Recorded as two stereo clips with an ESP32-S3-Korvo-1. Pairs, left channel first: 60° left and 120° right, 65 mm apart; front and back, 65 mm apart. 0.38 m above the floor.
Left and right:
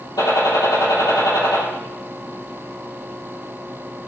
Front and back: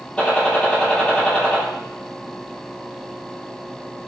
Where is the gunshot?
70° left, 6 m.